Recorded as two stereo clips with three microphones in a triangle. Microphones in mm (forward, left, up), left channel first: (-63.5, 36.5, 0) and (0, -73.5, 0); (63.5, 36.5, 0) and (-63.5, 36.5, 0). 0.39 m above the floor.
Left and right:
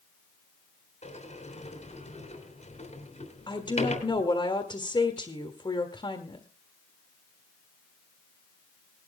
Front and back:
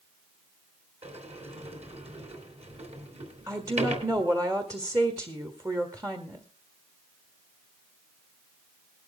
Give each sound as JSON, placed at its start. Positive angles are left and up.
{"t": 1.0, "sound": "a sliding door", "azimuth_deg": 150, "distance_m": 3.0}
{"t": 3.5, "sound": "a woman speaking", "azimuth_deg": 135, "distance_m": 1.5}